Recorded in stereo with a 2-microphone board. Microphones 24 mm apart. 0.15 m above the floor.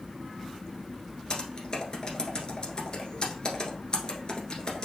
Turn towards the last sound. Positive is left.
turn(degrees=30)  # may be behind; listen again after turning